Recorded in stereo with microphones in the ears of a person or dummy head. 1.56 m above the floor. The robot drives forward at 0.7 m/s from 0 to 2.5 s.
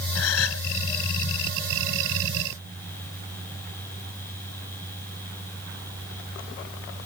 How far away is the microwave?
I don't hear a microwave.